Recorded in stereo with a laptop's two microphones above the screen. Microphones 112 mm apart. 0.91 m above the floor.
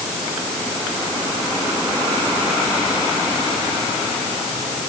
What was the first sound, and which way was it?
Only background noise.